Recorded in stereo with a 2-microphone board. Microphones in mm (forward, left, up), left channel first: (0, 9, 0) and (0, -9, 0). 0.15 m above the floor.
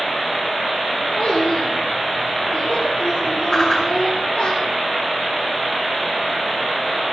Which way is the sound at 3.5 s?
35° left (ahead or behind).